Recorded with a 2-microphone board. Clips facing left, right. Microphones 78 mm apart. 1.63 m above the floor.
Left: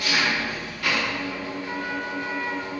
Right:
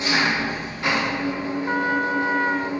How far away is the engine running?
About 1.3 m.